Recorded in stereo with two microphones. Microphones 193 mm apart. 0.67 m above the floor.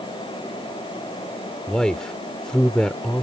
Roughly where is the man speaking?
Centre.